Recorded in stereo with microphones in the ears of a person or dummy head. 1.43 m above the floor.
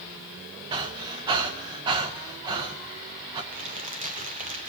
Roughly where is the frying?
I don't hear frying.